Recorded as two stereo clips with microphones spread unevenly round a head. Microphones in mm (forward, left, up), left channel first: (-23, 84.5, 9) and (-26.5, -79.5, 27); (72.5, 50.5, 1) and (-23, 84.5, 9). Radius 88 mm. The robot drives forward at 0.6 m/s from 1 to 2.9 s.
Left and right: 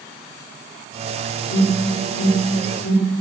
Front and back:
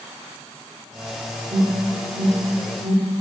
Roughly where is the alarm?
Left.